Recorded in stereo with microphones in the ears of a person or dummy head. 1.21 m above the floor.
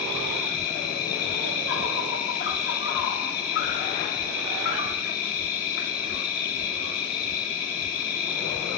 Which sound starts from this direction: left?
An insect, at 0.0 s.